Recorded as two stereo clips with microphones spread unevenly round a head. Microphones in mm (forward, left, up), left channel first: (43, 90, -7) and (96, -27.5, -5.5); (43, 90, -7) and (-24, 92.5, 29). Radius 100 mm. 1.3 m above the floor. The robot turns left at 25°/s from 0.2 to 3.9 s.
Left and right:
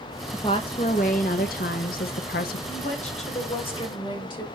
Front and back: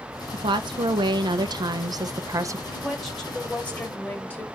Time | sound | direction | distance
0.3 | a woman speaking | 170° right | 0.8 m
2.7 | a woman speaking | 95° left | 5 m